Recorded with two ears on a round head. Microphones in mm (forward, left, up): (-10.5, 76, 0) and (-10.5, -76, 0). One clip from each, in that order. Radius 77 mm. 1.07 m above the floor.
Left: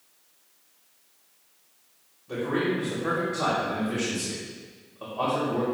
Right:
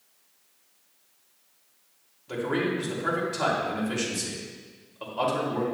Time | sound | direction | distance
2.3 | a man speaking | 80° right | 3 m